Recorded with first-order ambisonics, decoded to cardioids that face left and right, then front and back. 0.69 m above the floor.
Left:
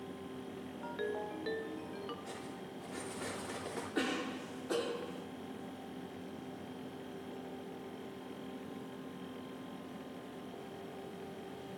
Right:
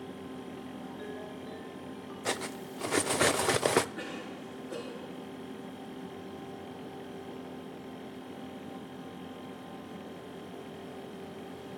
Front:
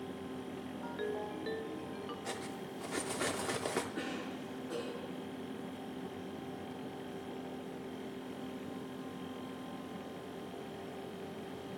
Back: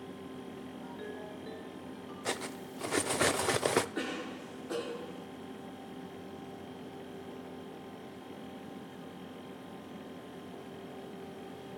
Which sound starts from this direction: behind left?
A cough, at 4.0 s.